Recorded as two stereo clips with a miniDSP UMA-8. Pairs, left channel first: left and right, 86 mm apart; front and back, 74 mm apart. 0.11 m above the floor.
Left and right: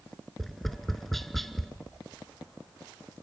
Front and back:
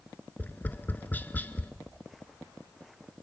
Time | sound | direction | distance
0.4 | tapping | 5° left | 0.8 m